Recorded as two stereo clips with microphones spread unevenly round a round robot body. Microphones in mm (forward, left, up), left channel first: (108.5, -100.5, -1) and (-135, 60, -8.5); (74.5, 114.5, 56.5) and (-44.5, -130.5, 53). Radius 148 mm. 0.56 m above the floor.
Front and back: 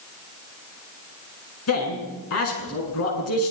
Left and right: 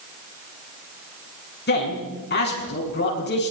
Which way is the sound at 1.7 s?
10° left.